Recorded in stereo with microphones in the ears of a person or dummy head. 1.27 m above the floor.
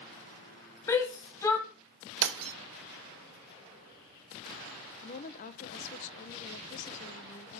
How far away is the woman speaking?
About 1.0 m.